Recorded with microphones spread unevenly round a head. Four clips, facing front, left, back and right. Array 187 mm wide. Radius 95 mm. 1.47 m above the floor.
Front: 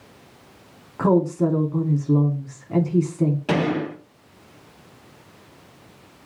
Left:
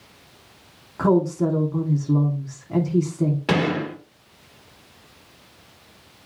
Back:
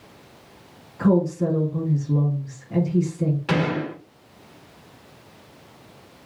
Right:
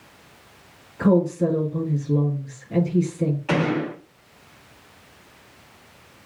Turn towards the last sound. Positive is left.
turn(degrees=70)